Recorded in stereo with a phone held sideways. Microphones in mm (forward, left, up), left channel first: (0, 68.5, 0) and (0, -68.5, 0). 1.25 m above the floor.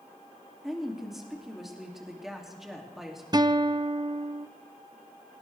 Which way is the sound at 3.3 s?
30° right (ahead or behind).